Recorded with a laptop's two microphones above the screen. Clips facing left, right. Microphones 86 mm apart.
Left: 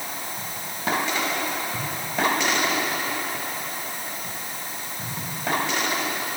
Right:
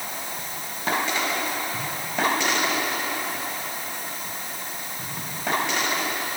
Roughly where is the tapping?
No tapping in this recording.